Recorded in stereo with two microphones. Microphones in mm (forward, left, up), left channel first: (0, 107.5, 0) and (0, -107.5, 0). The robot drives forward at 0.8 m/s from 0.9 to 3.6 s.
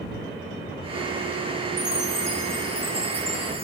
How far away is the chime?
About 3 m.